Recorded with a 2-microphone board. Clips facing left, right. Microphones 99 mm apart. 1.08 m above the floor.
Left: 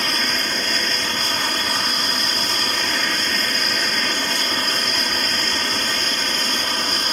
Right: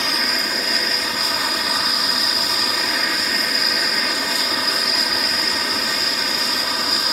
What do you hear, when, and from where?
0.0 s an aircraft: 5° right (ahead or behind)